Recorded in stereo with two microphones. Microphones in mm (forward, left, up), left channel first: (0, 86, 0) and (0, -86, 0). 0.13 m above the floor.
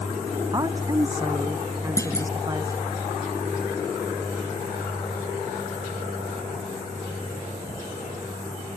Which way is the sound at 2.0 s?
20° left (ahead or behind).